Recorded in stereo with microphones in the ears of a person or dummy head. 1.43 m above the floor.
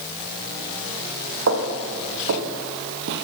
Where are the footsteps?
70° right (ahead or behind), 4.5 m; by 3.2 s 60° right (ahead or behind), 2.5 m.